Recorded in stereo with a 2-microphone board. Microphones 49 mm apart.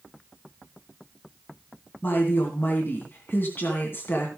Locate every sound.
2.0 s a woman speaking: 50° left (ahead or behind), 2.5 m